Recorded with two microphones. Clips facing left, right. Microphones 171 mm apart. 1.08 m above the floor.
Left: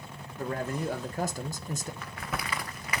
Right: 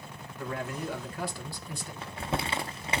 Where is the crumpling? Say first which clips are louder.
Right 4 dB; 30° right (ahead or behind), 0.6 m.